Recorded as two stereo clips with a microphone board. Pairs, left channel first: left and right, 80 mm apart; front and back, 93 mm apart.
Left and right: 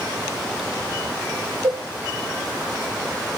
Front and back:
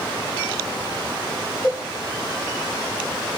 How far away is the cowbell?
About 3 m.